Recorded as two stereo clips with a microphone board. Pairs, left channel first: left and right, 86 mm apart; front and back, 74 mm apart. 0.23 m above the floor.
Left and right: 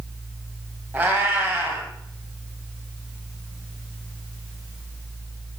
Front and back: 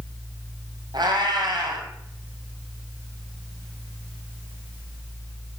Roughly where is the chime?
No chime in this recording.